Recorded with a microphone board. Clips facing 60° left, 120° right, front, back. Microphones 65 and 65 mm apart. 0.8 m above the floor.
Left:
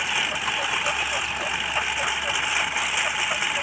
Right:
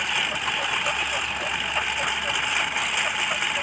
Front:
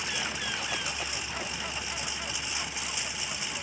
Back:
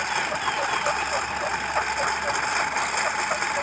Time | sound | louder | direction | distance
0.0 | a lawn mower | even, back 9 dB | 150° left | ?